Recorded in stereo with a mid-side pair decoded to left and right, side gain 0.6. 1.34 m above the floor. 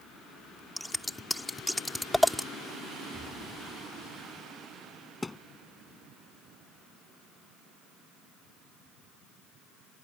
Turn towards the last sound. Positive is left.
turn(degrees=15)